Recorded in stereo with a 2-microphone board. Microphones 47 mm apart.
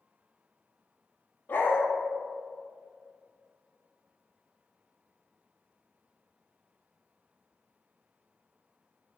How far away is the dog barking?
About 1.2 m.